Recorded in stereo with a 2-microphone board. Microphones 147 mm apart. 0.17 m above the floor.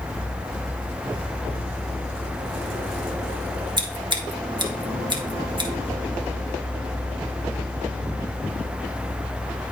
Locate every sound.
3.8 s scissors: 35° right (ahead or behind), 1.2 m